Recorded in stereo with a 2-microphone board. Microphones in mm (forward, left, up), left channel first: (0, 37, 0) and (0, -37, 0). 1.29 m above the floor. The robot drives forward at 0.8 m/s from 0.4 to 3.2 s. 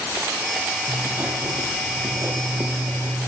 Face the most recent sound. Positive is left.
turn(degrees=-35)  # may be behind; listen again after turning